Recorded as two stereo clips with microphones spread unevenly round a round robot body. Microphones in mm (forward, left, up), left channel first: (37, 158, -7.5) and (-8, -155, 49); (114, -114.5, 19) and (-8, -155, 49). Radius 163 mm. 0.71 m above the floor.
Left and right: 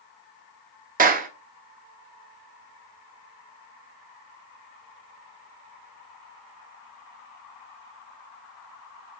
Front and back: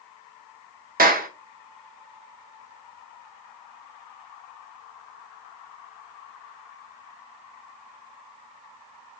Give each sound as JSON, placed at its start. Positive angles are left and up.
{"t": 1.0, "sound": "a clap", "azimuth_deg": -165, "distance_m": 1.0}